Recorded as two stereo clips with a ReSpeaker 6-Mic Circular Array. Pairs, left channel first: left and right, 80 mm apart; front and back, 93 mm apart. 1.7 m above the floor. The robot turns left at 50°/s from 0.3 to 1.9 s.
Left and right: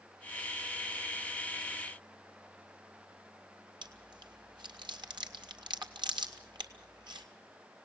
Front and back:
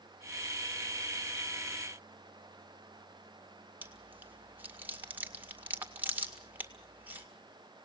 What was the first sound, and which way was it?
Chewing, 110° right.